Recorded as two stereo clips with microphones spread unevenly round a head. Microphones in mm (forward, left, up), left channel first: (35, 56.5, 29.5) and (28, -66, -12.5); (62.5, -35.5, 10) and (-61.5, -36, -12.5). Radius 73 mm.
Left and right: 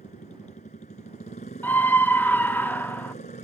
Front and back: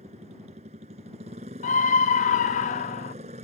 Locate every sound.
0.0 s a motorcycle: 130° left
1.6 s a scream: 5° right